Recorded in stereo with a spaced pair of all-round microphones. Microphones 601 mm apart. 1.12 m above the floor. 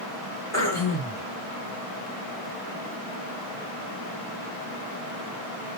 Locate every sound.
0.5 s throat clearing: 25° left (ahead or behind), 1.3 m